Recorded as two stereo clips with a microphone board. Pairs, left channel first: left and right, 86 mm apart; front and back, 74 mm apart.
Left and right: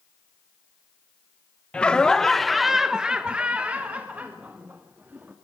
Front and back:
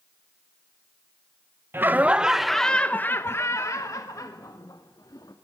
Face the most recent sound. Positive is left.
turn(degrees=-20)